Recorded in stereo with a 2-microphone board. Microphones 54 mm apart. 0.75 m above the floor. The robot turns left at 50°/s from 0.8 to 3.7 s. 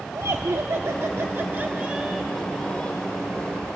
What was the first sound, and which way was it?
Laughter, 105° right.